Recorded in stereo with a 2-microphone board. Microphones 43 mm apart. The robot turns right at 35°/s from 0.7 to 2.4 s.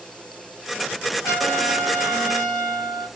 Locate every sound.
1.2 s a trumpet: 105° left, 3.5 m; by 3.1 s 145° left, 3.5 m